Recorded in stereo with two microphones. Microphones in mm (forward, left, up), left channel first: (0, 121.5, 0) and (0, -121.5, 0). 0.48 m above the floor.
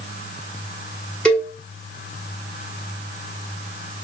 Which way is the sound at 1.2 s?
5° left (ahead or behind).